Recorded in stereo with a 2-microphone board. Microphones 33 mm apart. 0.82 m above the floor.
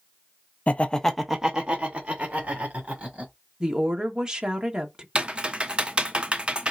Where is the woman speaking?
20° right (ahead or behind), 1.2 m.